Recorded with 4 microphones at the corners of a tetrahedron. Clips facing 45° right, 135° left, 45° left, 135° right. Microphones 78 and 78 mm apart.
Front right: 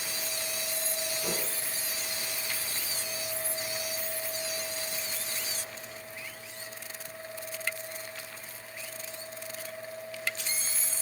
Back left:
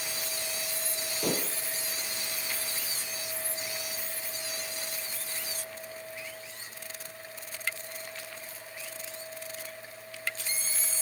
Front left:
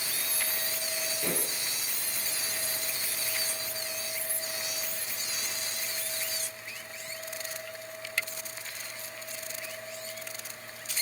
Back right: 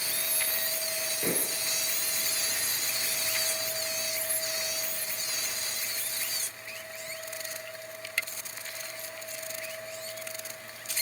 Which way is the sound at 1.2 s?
160° left.